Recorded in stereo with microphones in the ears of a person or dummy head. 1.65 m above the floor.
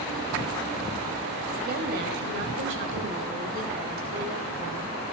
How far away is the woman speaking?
About 2 m.